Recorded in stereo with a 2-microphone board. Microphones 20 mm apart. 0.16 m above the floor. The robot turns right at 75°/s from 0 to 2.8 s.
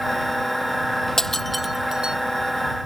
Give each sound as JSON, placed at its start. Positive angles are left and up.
{"t": 1.2, "sound": "breaking glass", "side_deg": 25}